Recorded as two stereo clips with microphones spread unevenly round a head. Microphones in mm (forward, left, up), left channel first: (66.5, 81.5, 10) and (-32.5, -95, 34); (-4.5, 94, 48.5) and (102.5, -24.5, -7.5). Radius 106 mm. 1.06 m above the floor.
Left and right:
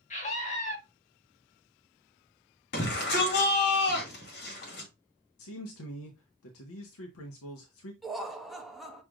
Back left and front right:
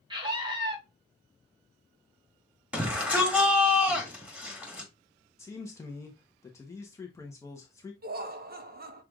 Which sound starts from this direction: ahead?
A scream, at 0.1 s.